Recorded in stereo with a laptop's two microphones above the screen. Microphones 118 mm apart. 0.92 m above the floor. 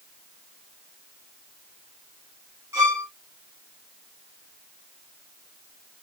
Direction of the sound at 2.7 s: 25° right (ahead or behind).